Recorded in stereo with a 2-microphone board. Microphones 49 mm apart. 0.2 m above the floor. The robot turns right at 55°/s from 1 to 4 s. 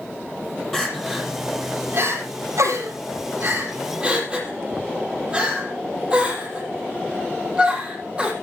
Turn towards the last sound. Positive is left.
turn(degrees=-20)  # may be behind; listen again after turning